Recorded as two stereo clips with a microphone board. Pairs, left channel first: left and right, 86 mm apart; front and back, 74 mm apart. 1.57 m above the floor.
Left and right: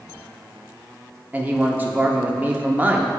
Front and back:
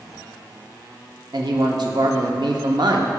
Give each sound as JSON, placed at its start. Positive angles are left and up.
{"t": 1.3, "sound": "a man speaking", "azimuth_deg": -160, "distance_m": 0.7}